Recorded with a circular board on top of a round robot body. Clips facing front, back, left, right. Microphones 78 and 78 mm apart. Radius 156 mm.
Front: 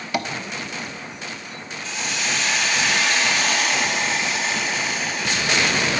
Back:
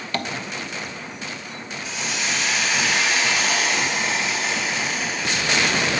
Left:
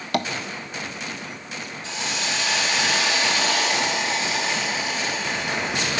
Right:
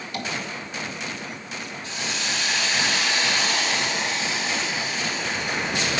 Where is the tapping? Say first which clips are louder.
Front 2 dB, left 8 dB; 80° left, 0.6 m.